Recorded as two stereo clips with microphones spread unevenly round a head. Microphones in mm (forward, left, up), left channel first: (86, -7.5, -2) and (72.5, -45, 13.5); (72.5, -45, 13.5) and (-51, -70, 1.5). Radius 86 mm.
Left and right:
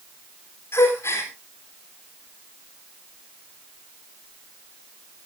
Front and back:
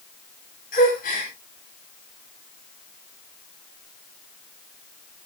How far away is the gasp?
About 4.5 m.